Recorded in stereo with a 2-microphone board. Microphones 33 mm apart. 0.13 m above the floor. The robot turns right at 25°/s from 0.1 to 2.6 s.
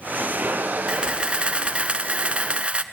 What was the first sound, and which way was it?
A camera shutter, 125° right.